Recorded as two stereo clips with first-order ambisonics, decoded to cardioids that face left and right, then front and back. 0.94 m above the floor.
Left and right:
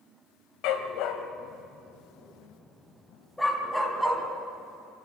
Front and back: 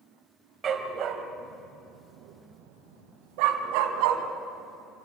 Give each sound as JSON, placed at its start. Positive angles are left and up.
{"t": 0.6, "sound": "a dog barking", "azimuth_deg": 115, "distance_m": 2.0}